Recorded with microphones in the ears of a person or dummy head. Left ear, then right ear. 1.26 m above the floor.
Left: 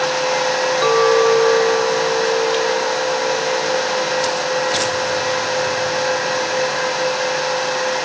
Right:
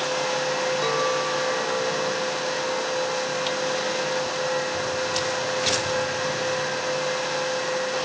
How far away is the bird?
I don't hear a bird.